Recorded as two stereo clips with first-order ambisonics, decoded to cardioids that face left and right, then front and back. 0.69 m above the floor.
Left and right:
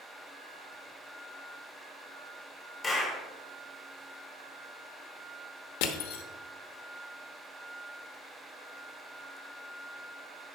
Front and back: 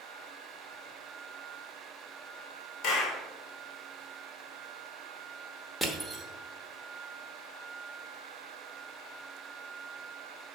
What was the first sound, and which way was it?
A clap, 20° left.